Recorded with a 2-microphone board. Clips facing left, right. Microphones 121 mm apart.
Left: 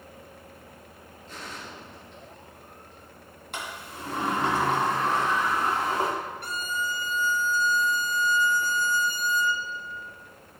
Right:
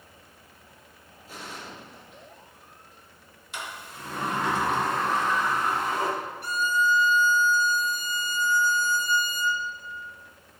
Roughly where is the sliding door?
Left.